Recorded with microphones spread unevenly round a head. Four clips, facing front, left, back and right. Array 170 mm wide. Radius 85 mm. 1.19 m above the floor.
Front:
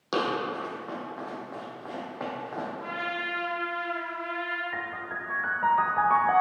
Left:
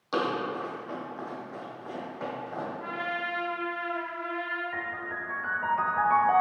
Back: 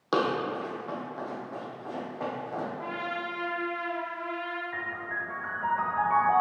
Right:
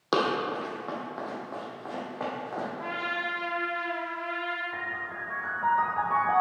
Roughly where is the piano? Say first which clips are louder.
Left 1 dB, even; ahead.